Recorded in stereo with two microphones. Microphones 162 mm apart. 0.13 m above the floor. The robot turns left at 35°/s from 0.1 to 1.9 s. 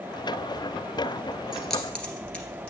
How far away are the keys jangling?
About 1.6 m.